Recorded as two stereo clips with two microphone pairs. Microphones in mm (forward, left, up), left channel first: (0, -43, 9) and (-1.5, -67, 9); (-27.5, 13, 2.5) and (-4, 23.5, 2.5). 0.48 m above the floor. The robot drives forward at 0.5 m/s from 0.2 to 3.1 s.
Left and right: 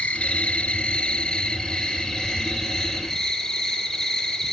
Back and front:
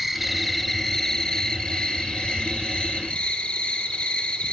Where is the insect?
110° left, 0.9 m; by 4.5 s 155° left, 1.9 m.